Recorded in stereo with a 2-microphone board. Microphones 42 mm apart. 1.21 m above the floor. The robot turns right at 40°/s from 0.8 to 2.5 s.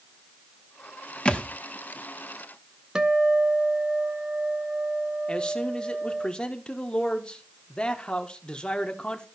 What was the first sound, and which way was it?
A thud, 25° left (ahead or behind).